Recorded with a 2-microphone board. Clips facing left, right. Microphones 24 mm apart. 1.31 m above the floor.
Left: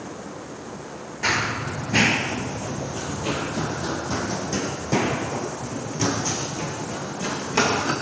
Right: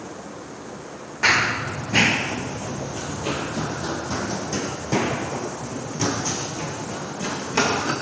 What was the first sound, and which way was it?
Running footsteps, 35° right (ahead or behind).